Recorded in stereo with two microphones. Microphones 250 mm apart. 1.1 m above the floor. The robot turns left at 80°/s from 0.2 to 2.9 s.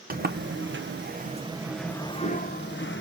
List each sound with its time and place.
0.1 s a sliding door: 55° right, 0.8 m; by 3.0 s 90° left, 0.8 m